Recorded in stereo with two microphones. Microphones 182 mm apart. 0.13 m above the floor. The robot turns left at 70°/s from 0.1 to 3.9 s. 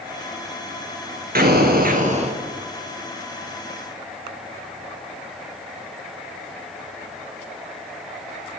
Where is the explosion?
75° right, 1.1 m; by 2.4 s 145° right, 1.1 m.